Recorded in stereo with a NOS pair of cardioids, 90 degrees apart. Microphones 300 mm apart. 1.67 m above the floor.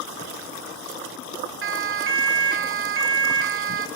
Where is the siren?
45° right, 3.5 m.